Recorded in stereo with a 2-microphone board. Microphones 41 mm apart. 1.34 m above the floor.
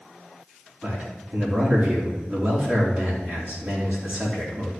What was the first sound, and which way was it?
A man speaking, 35° right (ahead or behind).